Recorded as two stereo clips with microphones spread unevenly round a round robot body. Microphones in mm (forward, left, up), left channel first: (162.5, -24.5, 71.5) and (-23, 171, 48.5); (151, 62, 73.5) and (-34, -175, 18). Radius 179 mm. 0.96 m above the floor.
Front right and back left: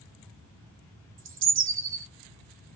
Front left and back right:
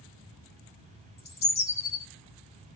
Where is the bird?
95° left, 1.1 m.